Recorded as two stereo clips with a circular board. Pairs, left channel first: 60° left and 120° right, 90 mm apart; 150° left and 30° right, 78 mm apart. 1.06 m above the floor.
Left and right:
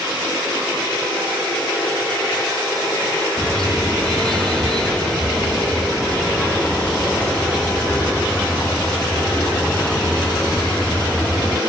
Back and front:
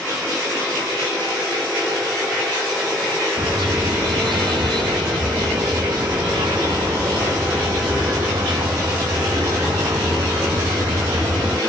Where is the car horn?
25° right; by 11.6 s 20° right.